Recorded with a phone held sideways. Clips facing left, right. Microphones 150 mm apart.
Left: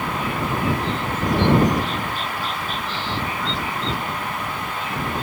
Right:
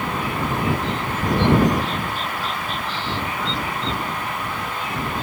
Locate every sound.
Only background noise.